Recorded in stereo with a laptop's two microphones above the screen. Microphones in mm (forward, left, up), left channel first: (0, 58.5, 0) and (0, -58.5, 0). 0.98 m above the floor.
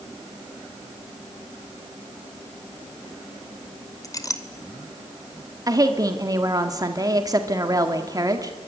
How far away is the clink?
About 2 m.